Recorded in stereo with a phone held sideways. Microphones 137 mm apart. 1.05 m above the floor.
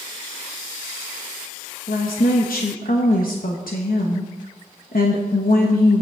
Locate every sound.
1.9 s a woman speaking: 80° left, 1.0 m